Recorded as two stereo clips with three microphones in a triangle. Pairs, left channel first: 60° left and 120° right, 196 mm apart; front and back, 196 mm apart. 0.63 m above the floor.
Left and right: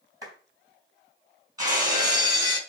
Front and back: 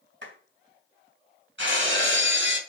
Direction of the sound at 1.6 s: 170° left.